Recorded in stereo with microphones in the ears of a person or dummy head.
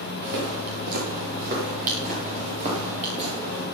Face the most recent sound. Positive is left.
turn(degrees=-30)  # may be behind; listen again after turning